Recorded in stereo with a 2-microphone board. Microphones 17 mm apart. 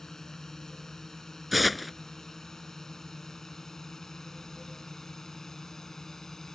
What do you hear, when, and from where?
0.0 s a drone: 30° left (ahead or behind)
1.5 s tearing paper: 5° right (ahead or behind)